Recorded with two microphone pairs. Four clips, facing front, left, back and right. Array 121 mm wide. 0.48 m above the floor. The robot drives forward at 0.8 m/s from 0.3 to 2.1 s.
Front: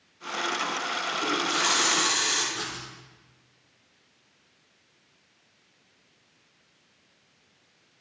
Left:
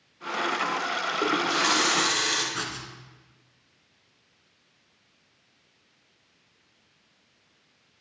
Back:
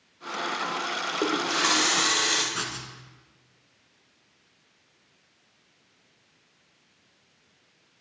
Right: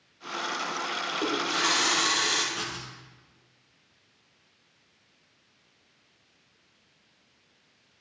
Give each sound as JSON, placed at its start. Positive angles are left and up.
{"t": 1.2, "sound": "a running tap", "azimuth_deg": 160, "distance_m": 1.1}
{"t": 2.5, "sound": "writing", "azimuth_deg": 140, "distance_m": 1.3}